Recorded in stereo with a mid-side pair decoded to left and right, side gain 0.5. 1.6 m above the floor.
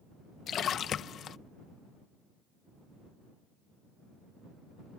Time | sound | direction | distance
0.5 | a splash | 55° left | ?